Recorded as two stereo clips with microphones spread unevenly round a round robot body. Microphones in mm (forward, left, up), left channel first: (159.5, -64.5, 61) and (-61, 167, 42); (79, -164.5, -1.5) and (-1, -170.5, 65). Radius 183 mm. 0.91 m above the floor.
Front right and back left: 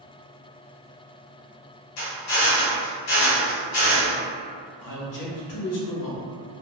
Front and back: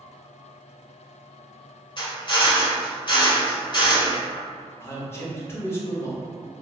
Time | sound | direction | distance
2.0 | a drill | 45° right | 1.5 m
4.8 | a man speaking | 25° right | 1.1 m